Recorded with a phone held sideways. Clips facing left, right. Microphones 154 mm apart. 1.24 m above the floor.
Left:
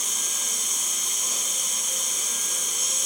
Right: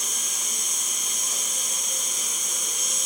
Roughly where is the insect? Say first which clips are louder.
Even; centre.